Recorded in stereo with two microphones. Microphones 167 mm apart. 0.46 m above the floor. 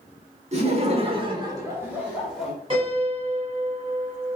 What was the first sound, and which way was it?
Laughter, 40° right (ahead or behind).